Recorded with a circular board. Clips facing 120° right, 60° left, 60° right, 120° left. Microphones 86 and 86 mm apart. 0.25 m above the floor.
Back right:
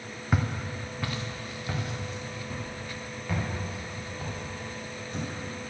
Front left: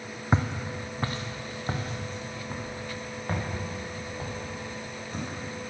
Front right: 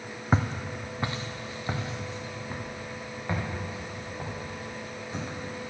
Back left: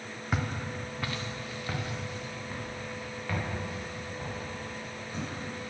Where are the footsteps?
5° right, 0.9 m; by 5.4 s 5° left, 6 m.